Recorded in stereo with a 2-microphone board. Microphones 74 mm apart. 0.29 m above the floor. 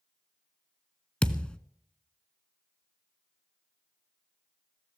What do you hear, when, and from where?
1.2 s a thud: 15° left (ahead or behind), 0.7 m